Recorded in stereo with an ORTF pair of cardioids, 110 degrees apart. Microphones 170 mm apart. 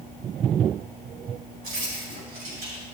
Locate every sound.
1.6 s keys jangling: 60° right, 5 m; by 2.8 s 65° right, 5.5 m